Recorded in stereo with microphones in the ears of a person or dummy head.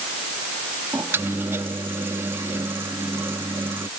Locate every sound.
0.9 s a microwave: 15° right (ahead or behind)